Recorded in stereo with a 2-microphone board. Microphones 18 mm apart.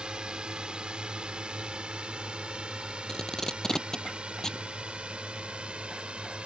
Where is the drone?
50° right (ahead or behind); by 6.5 s 70° right (ahead or behind).